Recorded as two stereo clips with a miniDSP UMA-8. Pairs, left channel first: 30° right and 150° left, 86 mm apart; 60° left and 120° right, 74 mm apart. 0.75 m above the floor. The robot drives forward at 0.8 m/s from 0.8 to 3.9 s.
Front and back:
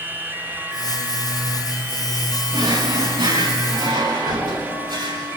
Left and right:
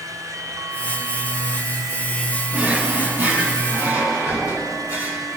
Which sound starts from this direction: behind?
A drawer, at 2.5 s.